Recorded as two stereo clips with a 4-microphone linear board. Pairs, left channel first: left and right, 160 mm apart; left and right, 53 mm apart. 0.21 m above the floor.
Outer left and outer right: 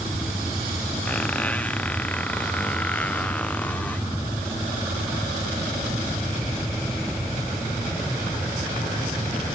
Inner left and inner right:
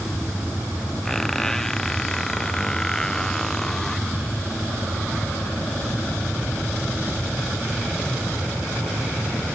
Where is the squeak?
10° left (ahead or behind).